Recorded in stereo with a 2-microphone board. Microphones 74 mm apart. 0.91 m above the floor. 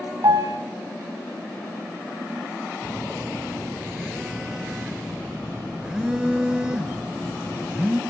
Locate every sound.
0.2 s a piano: 70° right (ahead or behind), 1.8 m
2.8 s a phone buzzing: 15° right (ahead or behind), 0.9 m